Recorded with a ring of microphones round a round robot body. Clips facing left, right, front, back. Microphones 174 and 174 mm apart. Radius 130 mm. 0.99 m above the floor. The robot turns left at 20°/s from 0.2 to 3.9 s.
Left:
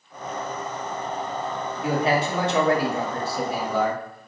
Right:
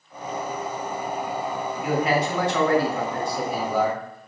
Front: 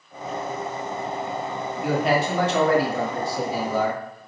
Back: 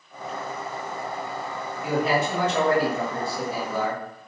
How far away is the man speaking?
About 1.5 m.